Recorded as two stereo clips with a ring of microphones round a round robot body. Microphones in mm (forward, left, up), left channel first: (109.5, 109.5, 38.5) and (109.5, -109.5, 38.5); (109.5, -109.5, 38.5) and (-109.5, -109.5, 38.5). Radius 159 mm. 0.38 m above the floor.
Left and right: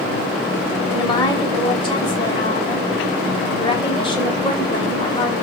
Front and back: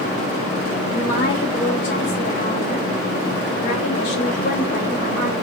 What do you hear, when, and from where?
0.9 s a woman speaking: 25° left, 1.6 m